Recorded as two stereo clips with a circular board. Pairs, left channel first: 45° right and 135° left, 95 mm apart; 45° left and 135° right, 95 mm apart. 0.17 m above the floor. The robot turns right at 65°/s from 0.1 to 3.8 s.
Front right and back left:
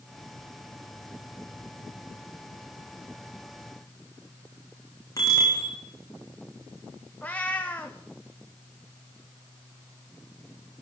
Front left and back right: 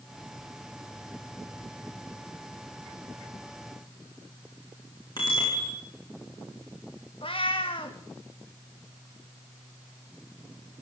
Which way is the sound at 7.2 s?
30° left.